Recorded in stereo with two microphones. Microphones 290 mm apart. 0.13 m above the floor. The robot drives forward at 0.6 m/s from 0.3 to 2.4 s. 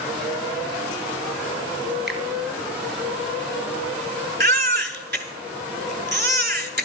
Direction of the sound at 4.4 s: 40° right (ahead or behind).